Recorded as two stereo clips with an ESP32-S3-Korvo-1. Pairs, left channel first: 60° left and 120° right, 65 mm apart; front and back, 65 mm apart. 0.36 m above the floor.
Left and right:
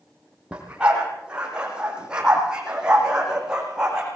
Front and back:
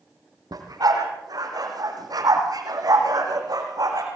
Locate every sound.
0.5 s a dog barking: 165° left, 6 m; by 4.1 s 160° left, 8 m